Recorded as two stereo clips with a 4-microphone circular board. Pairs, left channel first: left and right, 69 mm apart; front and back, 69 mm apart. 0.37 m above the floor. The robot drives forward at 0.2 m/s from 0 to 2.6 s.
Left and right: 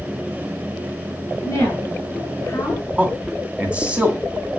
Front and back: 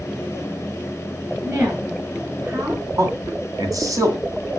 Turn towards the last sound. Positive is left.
turn(degrees=-160)